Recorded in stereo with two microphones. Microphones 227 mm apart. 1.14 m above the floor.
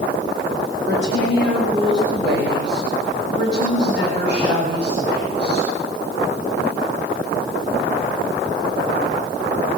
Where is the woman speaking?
60° right (ahead or behind), 7 m; by 5.7 s 55° right (ahead or behind), 10 m.